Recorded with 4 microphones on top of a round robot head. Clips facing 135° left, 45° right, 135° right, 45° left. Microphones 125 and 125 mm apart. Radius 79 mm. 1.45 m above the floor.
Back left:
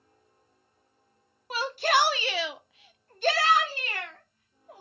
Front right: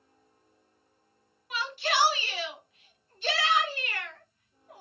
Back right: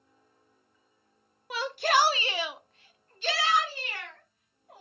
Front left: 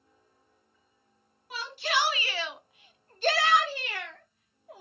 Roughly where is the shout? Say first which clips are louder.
Back left 5 dB, back right 5 dB; behind.